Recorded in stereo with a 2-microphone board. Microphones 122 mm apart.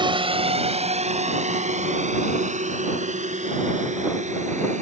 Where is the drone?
45° right (ahead or behind); by 4.8 s 80° right.